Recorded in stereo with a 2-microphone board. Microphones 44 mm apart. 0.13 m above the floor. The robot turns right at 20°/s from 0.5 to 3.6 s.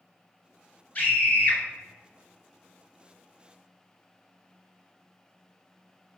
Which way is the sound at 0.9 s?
30° left (ahead or behind).